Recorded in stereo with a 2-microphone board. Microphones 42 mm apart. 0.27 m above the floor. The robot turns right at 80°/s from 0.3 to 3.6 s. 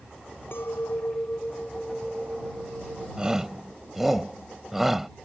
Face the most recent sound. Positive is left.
turn(degrees=-5)  # may be behind; listen again after turning